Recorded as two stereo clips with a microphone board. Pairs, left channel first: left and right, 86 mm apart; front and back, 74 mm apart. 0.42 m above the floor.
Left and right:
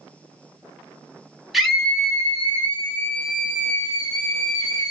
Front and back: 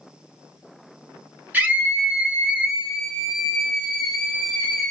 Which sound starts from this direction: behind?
A scream, at 1.5 s.